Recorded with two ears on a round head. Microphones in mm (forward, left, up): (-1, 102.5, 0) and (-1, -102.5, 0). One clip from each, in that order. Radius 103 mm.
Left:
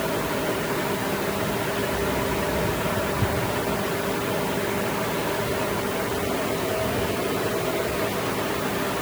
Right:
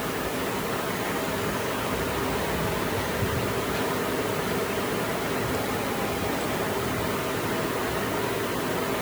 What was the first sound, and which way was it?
Only background noise.